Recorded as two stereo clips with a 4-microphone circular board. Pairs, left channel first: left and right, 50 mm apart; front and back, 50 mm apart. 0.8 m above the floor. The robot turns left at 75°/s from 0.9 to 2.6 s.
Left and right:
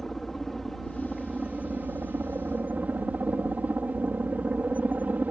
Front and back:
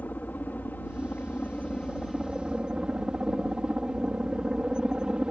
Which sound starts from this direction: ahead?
A helicopter, at 0.0 s.